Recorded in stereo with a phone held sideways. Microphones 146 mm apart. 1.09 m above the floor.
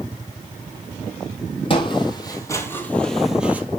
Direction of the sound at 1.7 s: 35° left (ahead or behind).